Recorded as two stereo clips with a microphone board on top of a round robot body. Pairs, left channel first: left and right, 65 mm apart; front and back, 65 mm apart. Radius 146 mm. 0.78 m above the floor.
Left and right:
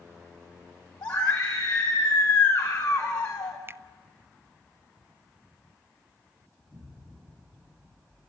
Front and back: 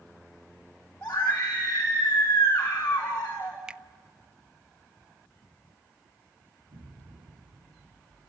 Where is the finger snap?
110° right, 0.8 m.